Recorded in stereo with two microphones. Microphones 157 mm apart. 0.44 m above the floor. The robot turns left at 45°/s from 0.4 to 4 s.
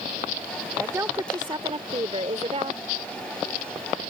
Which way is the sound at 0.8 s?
15° right.